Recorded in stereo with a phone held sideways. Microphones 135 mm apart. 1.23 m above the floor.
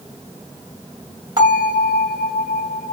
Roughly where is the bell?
Right.